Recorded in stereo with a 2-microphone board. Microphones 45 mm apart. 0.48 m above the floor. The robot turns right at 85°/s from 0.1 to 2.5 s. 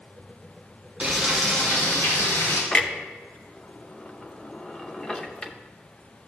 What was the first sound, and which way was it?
Frying, 35° right.